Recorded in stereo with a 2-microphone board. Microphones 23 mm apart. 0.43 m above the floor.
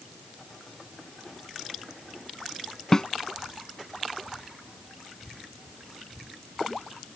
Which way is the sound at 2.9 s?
25° left (ahead or behind).